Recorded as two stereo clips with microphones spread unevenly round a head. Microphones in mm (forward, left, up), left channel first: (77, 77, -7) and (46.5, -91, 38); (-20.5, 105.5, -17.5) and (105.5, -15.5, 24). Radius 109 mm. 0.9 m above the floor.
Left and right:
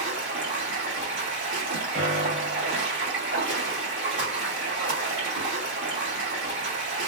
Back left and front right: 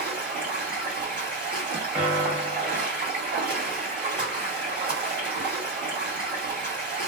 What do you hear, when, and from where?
0.0 s running water: 110° right, 1.8 m
1.9 s a piano: 140° right, 0.8 m